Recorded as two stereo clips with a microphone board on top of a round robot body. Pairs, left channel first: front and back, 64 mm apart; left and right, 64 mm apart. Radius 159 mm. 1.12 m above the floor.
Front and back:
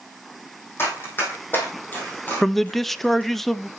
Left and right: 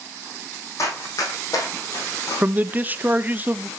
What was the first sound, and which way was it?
Running footsteps, 50° left.